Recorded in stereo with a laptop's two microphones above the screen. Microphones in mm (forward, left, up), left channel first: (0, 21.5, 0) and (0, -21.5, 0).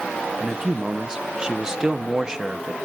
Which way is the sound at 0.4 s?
20° right (ahead or behind).